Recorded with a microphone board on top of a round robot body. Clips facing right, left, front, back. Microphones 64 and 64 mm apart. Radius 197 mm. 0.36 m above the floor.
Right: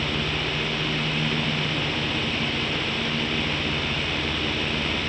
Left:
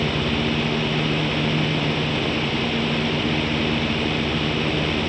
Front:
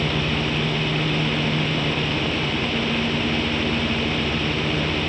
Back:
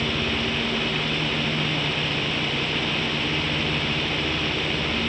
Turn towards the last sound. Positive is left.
No sound to turn to.